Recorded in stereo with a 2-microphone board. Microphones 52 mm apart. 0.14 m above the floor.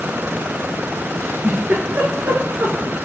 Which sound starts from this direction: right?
A giggle, at 1.2 s.